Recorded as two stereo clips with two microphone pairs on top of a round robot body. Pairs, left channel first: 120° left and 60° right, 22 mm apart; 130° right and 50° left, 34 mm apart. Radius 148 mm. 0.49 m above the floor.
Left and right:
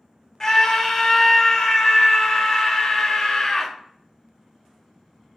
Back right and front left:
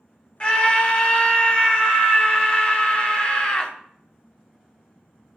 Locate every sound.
0.4 s a scream: 170° right, 1.7 m